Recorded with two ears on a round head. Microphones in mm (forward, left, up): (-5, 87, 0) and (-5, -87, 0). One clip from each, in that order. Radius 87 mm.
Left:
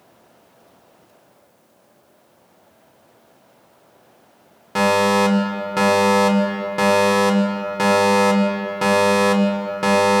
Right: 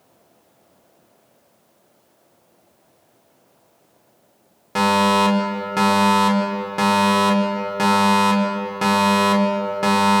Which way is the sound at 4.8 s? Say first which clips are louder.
Even; centre (ahead or behind).